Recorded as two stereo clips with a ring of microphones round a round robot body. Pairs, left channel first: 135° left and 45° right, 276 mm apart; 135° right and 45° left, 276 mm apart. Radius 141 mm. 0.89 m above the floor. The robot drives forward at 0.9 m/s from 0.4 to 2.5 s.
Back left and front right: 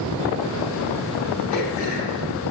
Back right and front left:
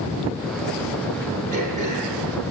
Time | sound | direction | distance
1.5 | throat clearing | 110° left | 6.5 m